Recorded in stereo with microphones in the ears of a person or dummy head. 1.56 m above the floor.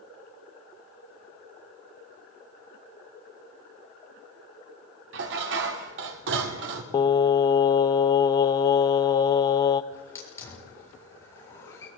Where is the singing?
20° left (ahead or behind), 1.0 m.